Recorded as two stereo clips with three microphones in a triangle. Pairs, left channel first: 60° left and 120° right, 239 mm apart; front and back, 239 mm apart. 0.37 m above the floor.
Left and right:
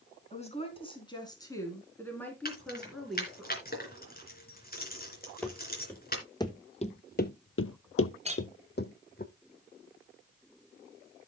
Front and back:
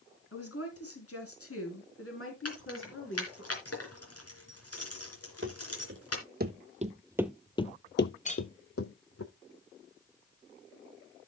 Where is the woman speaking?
Straight ahead, 3 m; by 3.5 s 35° right, 4.5 m.